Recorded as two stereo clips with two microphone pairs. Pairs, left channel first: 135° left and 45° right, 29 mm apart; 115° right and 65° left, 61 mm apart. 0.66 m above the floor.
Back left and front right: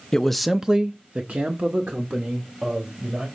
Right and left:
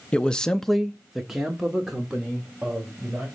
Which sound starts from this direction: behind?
A man speaking, at 0.1 s.